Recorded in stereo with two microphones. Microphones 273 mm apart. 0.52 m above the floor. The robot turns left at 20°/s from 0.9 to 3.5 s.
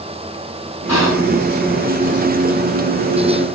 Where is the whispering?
80° left, 4 m; by 1.3 s 75° left (ahead or behind), 4 m.